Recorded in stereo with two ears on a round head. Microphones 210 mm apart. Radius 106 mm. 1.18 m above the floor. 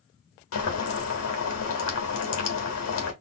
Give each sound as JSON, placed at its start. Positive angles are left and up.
{"t": 0.5, "sound": "boiling", "side_deg": 65, "distance_m": 1.5}